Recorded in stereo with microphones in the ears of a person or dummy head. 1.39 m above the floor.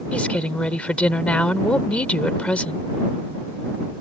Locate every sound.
0.1 s a woman speaking: 10° left (ahead or behind)